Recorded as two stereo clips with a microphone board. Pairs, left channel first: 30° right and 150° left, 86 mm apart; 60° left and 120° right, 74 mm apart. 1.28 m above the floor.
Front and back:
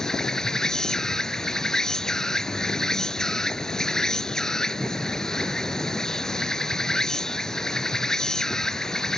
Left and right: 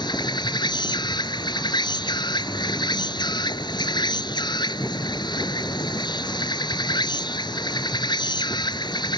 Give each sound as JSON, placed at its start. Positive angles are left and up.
{"t": 0.0, "sound": "an insect", "azimuth_deg": 55}